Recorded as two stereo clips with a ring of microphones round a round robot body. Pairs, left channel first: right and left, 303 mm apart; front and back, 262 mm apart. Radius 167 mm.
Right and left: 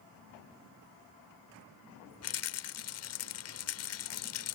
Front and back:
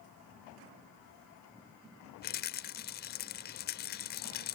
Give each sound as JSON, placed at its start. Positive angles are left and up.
{"t": 2.2, "sound": "a rattle", "azimuth_deg": -55}